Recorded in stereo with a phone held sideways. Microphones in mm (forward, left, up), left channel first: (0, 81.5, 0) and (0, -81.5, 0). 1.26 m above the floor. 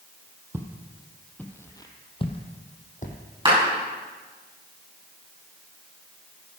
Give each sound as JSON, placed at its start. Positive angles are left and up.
{"t": 0.5, "sound": "footsteps", "side_deg": -15, "distance_m": 1.9}
{"t": 3.5, "sound": "a clap", "side_deg": -30, "distance_m": 7.0}